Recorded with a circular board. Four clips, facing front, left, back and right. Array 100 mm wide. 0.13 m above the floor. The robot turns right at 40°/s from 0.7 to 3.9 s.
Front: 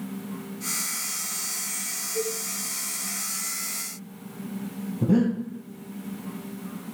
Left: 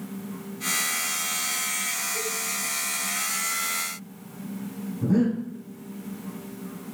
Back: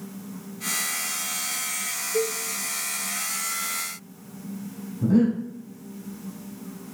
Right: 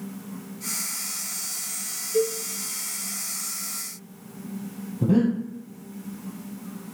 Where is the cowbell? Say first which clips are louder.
Right 13 dB, back 4 dB; 135° right, 4.5 m; by 2.4 s 125° right, 4.5 m.